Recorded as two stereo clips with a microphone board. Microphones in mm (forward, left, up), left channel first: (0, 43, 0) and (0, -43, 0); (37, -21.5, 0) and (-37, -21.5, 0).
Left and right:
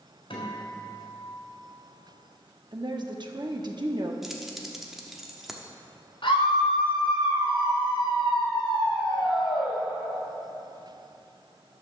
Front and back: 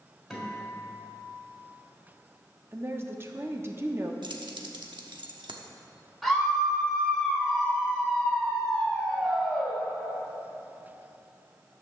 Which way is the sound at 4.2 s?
Straight behind.